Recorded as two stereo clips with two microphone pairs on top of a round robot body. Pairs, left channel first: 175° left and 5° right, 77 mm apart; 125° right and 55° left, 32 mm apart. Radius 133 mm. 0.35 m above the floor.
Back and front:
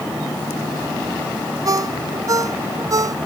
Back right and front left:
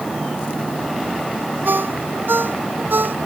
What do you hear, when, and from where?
1.6 s a ringtone: 40° left